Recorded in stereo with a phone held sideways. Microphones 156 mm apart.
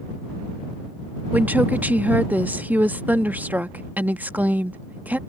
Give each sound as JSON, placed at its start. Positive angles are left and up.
{"t": 1.3, "sound": "a woman speaking", "side_deg": -10}